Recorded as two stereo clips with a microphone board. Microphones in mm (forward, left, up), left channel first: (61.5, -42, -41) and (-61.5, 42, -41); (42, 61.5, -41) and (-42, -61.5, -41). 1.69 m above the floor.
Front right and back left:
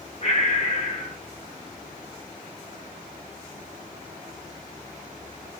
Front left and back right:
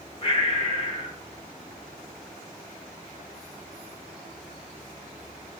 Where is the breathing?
5° left, 0.9 m.